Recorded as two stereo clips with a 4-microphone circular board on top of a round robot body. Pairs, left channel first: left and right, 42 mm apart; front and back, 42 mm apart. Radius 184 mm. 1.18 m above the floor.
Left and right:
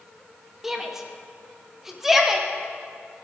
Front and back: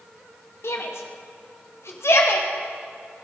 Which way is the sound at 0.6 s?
10° right.